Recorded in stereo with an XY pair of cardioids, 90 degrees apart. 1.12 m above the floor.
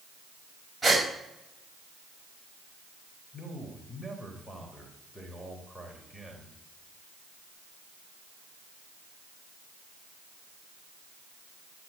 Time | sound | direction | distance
0.8 | a gasp | 10° right | 6 m
3.3 | a man speaking | straight ahead | 4 m